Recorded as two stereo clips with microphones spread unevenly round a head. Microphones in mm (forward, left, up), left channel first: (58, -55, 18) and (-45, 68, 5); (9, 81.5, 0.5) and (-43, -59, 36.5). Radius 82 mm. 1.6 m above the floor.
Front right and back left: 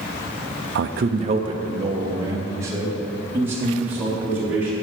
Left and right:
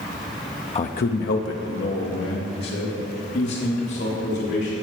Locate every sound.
0.8 s a man speaking: 120° left, 0.5 m; by 4.7 s 50° left, 5 m